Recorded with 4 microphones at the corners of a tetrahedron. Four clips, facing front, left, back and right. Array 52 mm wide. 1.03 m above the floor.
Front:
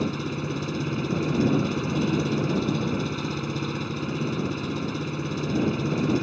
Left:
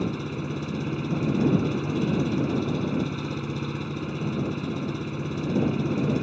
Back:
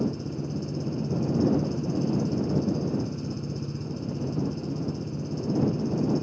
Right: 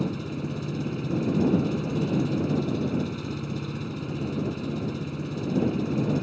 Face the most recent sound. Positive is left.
turn(degrees=15)